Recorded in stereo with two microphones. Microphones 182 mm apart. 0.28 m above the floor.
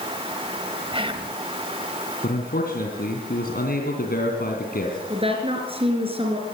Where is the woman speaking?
35° right (ahead or behind), 3.5 m.